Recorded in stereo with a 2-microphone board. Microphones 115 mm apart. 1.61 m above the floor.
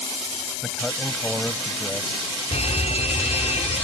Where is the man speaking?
5° left (ahead or behind); by 2.3 s centre (ahead or behind).